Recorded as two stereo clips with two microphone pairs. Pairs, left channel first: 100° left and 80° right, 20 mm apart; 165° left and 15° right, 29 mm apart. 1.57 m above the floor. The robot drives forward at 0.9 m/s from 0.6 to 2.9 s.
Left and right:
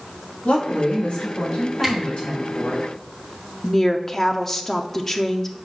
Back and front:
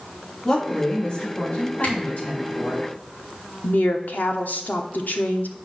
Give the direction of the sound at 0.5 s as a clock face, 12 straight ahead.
9 o'clock.